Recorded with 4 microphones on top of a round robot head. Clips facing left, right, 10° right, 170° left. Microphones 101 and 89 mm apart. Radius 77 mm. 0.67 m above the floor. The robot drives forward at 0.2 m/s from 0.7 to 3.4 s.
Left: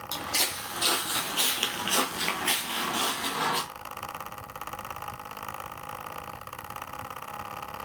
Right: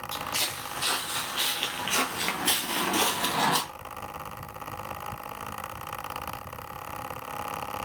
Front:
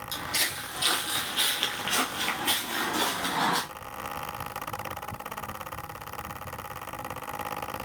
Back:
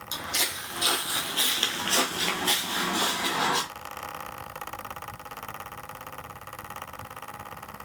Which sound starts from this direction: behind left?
Footsteps, at 0.1 s.